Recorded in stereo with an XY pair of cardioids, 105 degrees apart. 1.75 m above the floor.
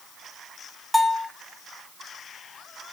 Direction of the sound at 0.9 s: Straight ahead.